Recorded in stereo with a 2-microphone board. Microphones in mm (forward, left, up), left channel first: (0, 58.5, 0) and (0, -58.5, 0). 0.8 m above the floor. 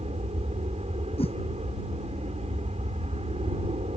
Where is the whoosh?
50° left (ahead or behind).